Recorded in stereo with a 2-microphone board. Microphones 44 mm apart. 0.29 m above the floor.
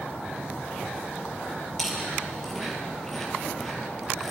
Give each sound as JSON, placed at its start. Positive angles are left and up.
{"t": 1.8, "sound": "chewing", "side_deg": 5, "distance_m": 5.0}